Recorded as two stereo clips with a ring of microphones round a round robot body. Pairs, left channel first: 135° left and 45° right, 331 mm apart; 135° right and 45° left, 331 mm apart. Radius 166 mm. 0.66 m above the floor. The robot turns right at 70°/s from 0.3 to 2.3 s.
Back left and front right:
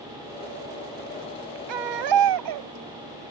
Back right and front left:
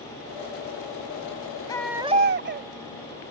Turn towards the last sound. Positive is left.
turn(degrees=-15)